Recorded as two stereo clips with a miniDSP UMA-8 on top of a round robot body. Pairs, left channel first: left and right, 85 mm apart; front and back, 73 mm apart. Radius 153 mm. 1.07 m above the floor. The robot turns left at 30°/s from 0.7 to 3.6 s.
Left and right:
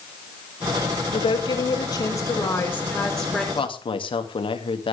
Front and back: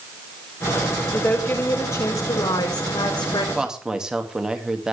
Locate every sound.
1.1 s a woman speaking: 70° left, 4.5 m; by 3.5 s straight ahead, 4.5 m
3.5 s a woman speaking: 100° left, 2.5 m